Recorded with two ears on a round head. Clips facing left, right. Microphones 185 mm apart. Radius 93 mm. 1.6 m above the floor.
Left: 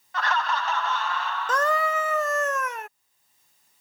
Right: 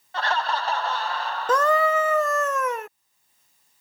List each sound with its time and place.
0.1 s laughter: 25° right (ahead or behind); by 2.5 s 35° right (ahead or behind)
1.5 s a scream: 70° right (ahead or behind)